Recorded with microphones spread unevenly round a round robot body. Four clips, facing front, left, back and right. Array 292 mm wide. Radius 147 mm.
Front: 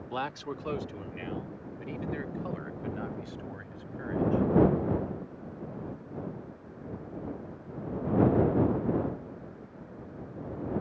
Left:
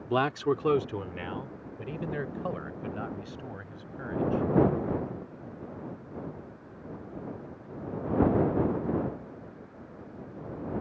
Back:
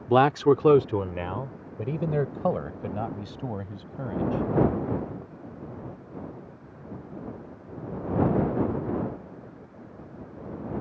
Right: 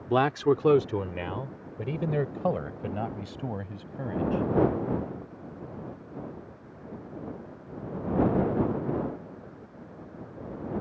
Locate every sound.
0.1 s a man speaking: 170° right; by 4.4 s 145° right